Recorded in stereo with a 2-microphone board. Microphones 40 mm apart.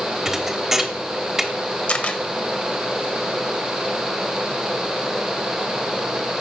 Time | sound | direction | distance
0.2 | a thud | 15° right (ahead or behind) | 1.1 m
1.9 | a camera shutter | 35° left (ahead or behind) | 0.9 m